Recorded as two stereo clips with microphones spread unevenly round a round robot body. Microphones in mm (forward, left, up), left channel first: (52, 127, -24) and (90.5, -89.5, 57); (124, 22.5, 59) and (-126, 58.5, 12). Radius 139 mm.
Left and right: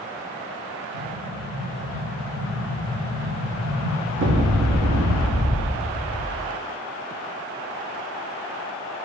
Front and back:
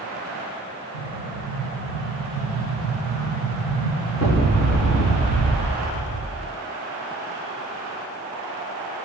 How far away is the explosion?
About 7 m.